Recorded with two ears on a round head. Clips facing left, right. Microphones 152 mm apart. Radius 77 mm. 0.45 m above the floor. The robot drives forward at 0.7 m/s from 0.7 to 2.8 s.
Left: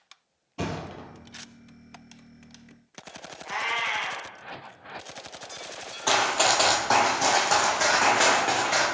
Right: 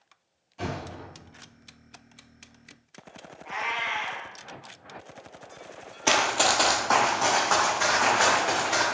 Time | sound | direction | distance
0.6 | a thud | 65° left (ahead or behind) | 1.0 m
3.5 | a cat meowing | 60° left (ahead or behind) | 1.0 m
6.1 | running footsteps | 25° right (ahead or behind) | 0.6 m